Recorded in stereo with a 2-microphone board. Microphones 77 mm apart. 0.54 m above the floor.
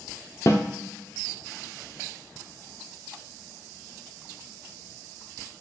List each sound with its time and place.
0.5 s a snare drum: 40° left (ahead or behind), 0.6 m